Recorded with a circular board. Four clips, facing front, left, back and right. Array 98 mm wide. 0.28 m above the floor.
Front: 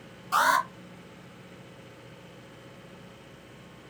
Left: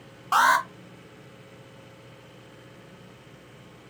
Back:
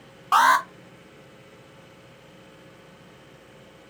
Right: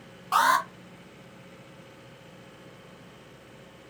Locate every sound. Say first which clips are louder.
0.3 s an alarm: left 2 dB, back 6 dB; 165° left, 1.2 m